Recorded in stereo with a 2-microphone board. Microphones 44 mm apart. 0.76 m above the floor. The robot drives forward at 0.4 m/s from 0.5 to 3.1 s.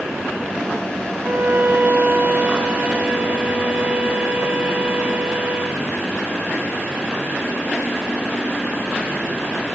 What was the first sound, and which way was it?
A violin, 45° right (ahead or behind).